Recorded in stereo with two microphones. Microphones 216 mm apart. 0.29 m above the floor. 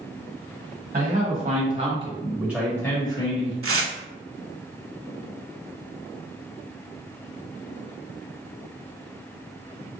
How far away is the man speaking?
About 1.7 m.